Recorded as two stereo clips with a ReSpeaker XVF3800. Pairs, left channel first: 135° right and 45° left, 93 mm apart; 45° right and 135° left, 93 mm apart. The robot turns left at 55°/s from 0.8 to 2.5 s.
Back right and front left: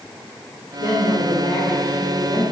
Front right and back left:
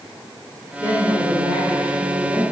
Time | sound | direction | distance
0.8 | a woman speaking | 105° right | 2 m